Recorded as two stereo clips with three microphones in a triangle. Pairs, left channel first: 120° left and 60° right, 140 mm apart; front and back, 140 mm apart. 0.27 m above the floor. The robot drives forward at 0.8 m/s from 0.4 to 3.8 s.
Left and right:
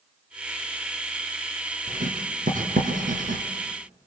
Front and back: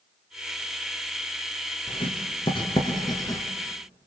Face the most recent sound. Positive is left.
turn(degrees=-70)